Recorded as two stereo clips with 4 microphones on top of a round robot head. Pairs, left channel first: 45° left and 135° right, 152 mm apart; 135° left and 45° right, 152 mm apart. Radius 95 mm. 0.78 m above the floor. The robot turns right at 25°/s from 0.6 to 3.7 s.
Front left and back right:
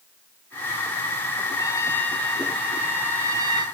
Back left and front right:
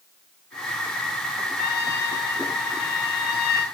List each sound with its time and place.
1.6 s a trumpet: 110° left, 1.7 m; by 3.7 s 165° left, 1.7 m